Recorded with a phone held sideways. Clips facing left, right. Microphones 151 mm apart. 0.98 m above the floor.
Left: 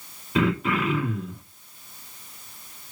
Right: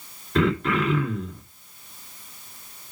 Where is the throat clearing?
5° left (ahead or behind), 1.6 m.